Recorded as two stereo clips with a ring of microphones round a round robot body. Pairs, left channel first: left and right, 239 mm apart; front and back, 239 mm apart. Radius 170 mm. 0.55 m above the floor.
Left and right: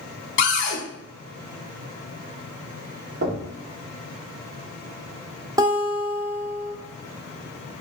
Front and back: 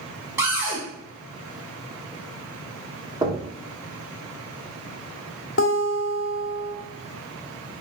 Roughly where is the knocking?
Behind right.